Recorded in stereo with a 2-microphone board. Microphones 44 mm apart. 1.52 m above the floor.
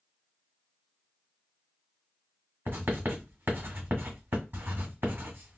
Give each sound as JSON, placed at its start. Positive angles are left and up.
{"t": 2.7, "sound": "writing", "side_deg": -60, "distance_m": 1.8}